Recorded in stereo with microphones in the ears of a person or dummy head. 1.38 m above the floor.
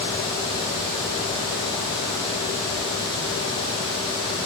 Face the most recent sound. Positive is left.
No sound to turn to.